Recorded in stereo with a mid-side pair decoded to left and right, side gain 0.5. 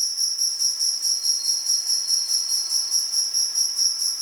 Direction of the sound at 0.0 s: Straight ahead.